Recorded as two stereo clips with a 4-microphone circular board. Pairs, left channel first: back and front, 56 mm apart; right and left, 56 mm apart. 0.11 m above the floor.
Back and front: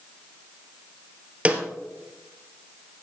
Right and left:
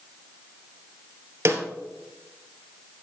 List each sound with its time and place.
1.4 s a snare drum: 65° left, 1.7 m